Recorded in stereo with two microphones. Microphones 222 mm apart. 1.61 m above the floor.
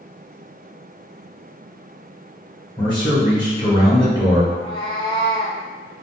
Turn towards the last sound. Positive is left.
turn(degrees=20)  # may be behind; listen again after turning